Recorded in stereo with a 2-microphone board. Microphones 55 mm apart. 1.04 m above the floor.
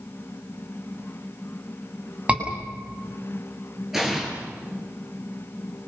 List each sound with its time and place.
2.3 s a scream: 20° right (ahead or behind), 7.5 m
3.9 s an explosion: 5° right (ahead or behind), 7.5 m